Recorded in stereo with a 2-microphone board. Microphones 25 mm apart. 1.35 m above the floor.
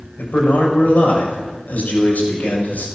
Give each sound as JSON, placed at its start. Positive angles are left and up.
{"t": 0.2, "sound": "a man speaking", "side_deg": 85, "distance_m": 6.5}